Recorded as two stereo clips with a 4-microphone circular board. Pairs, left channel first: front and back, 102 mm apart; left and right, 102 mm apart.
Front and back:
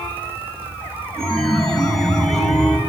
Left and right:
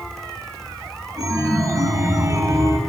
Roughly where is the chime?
Right.